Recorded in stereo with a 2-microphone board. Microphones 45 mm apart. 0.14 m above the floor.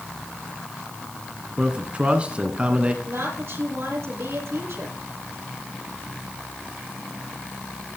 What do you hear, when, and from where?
1.6 s a man speaking: 25° right (ahead or behind), 1.8 m
3.0 s a woman speaking: 65° right (ahead or behind), 4.5 m